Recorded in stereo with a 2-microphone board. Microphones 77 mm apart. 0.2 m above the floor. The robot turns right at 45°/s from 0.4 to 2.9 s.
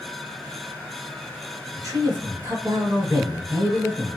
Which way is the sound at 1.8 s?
115° right.